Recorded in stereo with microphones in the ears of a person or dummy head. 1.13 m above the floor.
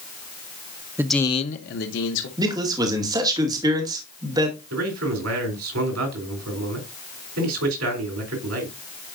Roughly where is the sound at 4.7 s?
Right.